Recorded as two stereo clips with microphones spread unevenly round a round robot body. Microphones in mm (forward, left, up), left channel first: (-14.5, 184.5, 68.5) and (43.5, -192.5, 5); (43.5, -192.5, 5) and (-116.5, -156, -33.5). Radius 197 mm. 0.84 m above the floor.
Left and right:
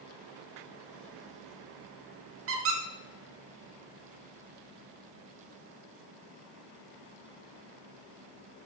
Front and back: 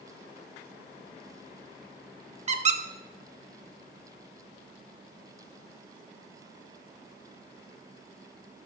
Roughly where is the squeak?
Behind right.